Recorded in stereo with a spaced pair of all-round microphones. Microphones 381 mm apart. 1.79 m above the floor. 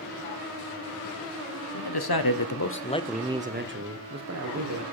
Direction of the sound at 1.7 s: 80° left.